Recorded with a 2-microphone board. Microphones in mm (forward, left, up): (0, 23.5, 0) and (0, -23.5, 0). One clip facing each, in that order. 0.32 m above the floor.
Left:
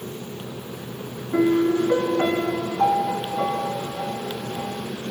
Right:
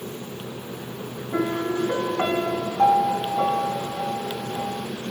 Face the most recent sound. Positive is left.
turn(degrees=-40)  # may be behind; listen again after turning